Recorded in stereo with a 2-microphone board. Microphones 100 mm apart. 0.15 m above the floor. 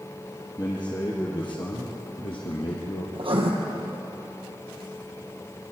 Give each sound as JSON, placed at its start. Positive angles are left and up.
{"t": 0.6, "sound": "a man speaking", "side_deg": 45, "distance_m": 4.0}
{"t": 3.1, "sound": "writing", "side_deg": -65, "distance_m": 4.0}